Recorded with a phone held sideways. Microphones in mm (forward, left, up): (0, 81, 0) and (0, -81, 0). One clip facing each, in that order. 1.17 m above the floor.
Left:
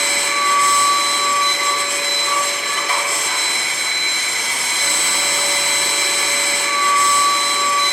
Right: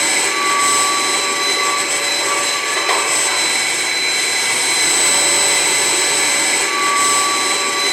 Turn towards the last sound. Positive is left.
turn(degrees=-70)  # may be behind; listen again after turning